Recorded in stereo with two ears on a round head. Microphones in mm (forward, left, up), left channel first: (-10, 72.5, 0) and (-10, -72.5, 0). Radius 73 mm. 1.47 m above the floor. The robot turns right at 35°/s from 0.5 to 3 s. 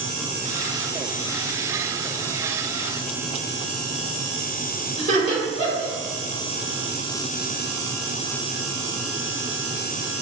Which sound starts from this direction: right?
Laughter, at 5.0 s.